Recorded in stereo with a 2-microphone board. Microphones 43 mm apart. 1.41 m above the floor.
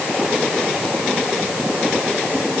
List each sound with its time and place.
Only background noise.